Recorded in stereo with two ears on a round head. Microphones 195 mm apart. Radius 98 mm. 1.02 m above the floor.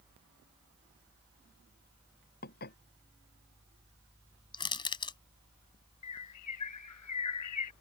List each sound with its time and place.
2.4 s dishes clattering: 45° left (ahead or behind)
4.5 s crushing: 20° left (ahead or behind)
6.0 s a bird: 85° left